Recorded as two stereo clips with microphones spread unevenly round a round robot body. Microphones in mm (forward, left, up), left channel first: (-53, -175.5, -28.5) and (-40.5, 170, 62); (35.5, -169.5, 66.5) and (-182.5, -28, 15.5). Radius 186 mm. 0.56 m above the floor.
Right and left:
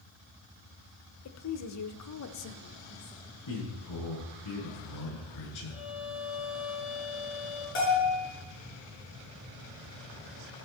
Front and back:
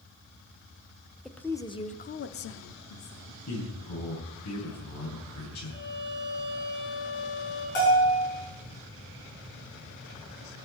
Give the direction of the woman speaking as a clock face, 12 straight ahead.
4 o'clock.